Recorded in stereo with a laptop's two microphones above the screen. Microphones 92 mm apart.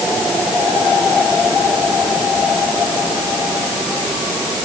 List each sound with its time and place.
Only background noise.